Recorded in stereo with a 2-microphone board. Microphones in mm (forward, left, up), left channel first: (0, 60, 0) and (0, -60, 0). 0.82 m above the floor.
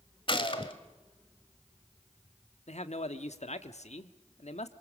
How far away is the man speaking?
About 1.3 m.